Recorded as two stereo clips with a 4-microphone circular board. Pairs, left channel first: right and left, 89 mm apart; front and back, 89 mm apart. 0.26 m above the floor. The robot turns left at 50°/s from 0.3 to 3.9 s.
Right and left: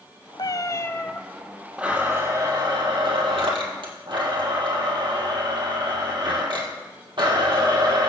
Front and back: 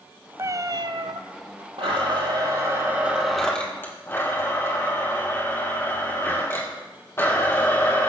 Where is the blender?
170° left, 3 m; by 8.1 s 60° left, 3 m.